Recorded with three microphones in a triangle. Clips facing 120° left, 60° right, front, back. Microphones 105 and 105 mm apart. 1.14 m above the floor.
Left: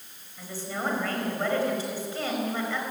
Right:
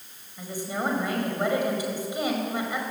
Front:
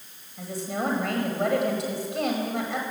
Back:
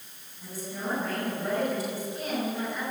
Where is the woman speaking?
15° left, 5 m.